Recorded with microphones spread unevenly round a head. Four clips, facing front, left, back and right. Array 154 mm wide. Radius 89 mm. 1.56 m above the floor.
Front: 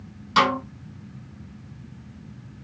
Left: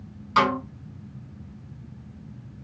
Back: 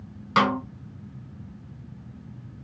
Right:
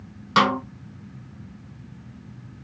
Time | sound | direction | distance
0.4 | a snare drum | 105° right | 1.9 m